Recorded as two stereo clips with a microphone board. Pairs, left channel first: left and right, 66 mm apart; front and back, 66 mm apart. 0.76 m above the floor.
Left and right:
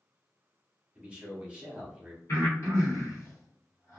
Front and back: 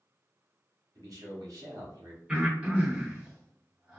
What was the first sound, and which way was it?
A man speaking, 160° right.